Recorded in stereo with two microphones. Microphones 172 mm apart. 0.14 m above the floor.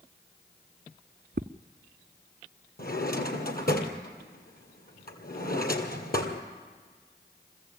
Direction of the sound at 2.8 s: 60° left (ahead or behind).